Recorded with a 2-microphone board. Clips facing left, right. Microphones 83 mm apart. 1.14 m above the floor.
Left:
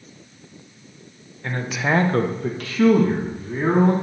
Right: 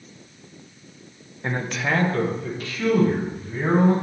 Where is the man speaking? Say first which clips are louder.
Left 2 dB; 20° right (ahead or behind), 0.8 m; by 3.9 s 85° left, 2.5 m.